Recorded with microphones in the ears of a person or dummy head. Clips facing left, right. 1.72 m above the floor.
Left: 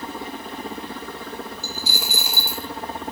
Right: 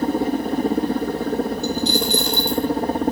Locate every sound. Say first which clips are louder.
0.0 s a helicopter: right 13 dB; 40° right (ahead or behind)
1.6 s a dropped coin: right 12 dB; 5° left (ahead or behind)